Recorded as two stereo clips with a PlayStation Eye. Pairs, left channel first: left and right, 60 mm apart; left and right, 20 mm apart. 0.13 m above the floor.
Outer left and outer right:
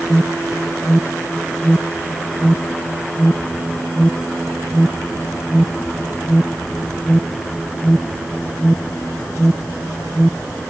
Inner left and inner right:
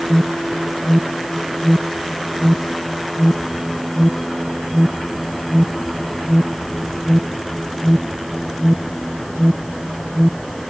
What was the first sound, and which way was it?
An alarm, centre (ahead or behind).